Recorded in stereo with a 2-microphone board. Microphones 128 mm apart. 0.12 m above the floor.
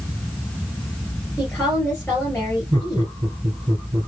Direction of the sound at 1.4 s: 10° left (ahead or behind).